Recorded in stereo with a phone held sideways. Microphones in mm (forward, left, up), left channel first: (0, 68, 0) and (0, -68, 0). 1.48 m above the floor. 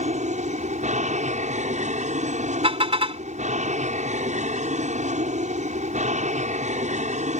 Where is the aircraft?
60° right (ahead or behind).